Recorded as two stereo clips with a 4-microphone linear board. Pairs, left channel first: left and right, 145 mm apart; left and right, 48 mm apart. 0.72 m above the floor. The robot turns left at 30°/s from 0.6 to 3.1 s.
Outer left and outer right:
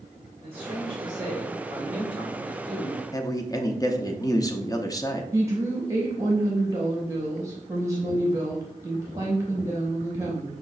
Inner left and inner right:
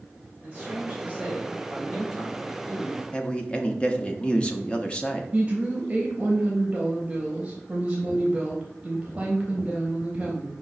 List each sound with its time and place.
0.4 s a man speaking: 125° right, 0.9 m; by 3.0 s 165° left, 0.9 m
3.1 s a man speaking: 25° left (ahead or behind), 0.5 m
5.3 s a woman speaking: 20° right (ahead or behind), 0.8 m